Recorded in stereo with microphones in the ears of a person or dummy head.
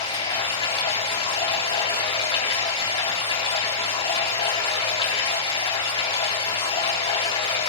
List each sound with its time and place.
0.0 s running water: 30° left (ahead or behind), 4.5 m